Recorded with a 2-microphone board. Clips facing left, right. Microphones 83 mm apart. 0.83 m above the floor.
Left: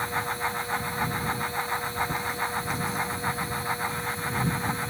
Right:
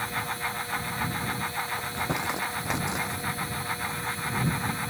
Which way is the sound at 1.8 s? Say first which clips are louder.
Left 1 dB; 80° right.